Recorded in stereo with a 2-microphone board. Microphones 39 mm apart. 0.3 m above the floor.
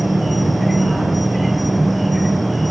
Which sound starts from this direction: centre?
An insect, at 0.0 s.